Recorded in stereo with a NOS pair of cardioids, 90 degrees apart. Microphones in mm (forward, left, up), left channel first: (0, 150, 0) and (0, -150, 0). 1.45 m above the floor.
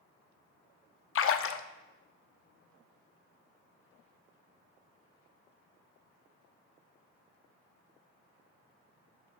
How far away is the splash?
About 0.6 m.